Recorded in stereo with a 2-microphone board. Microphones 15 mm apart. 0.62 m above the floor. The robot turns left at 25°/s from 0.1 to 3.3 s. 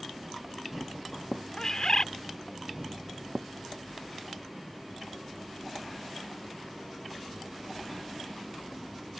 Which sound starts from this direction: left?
A bird, at 1.6 s.